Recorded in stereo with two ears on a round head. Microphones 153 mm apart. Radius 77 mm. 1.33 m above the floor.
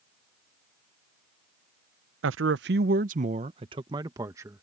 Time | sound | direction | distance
2.2 | a man speaking | 85° right | ?